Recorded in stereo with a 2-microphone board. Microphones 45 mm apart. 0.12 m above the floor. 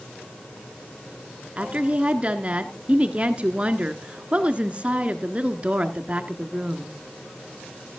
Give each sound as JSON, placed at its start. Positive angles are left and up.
{"t": 1.6, "sound": "a woman speaking", "side_deg": -30, "distance_m": 1.3}